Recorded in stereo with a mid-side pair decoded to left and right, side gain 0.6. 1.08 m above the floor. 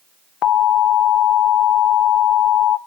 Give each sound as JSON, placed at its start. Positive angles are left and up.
{"t": 0.4, "sound": "an alarm", "azimuth_deg": 50, "distance_m": 0.5}